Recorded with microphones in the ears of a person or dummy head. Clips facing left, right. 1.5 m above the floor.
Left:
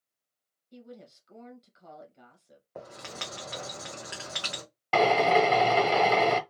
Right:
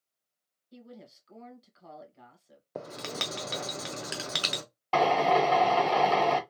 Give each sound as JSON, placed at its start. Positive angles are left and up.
{"t": 0.7, "sound": "a woman speaking", "side_deg": 0, "distance_m": 1.3}
{"t": 2.8, "sound": "writing", "side_deg": -50, "distance_m": 0.7}
{"t": 4.9, "sound": "a drill", "side_deg": 20, "distance_m": 0.9}